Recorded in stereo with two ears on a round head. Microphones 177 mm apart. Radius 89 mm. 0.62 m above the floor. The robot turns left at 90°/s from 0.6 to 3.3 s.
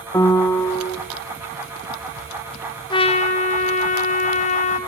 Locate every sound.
0.1 s a piano: 155° left, 1.3 m; by 1.0 s 125° left, 1.3 m
2.9 s a trumpet: 140° left, 1.2 m; by 4.8 s 105° left, 1.2 m